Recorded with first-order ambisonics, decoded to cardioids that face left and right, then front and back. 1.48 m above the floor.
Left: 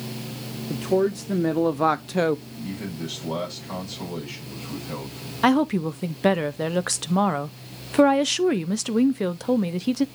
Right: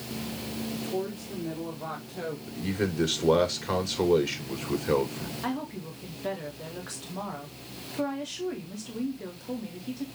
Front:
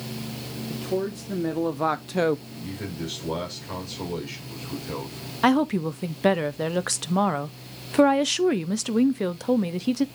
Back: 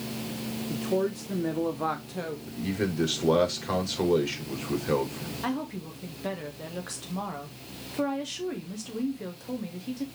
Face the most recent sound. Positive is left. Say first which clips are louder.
# left 16 dB, front 13 dB
turn(degrees=50)